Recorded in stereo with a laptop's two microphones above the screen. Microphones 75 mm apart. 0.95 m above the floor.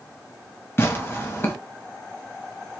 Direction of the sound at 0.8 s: 30° left (ahead or behind).